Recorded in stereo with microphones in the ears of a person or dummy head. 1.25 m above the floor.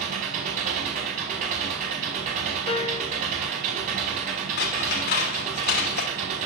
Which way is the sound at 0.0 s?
40° right (ahead or behind).